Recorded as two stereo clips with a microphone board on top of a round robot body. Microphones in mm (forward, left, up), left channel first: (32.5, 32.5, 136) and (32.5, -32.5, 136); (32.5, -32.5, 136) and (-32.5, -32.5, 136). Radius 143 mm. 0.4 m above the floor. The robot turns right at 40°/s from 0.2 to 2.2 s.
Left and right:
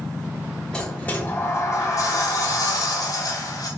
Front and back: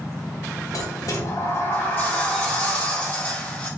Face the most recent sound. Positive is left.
turn(degrees=70)